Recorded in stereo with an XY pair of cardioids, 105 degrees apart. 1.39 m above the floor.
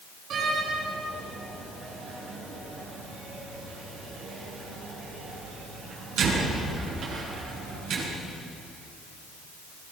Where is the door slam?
70° right, 9 m.